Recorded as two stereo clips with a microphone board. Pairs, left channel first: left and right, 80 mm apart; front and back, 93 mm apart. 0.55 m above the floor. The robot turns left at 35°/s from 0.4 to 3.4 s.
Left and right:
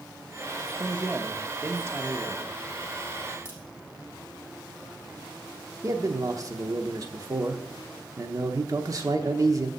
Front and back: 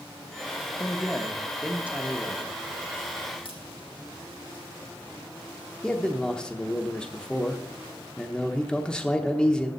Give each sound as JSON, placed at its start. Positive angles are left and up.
{"t": 0.8, "sound": "a man speaking", "azimuth_deg": -75, "distance_m": 0.8}
{"t": 3.5, "sound": "a crack", "azimuth_deg": -25, "distance_m": 4.0}
{"t": 5.8, "sound": "a man speaking", "azimuth_deg": -75, "distance_m": 0.9}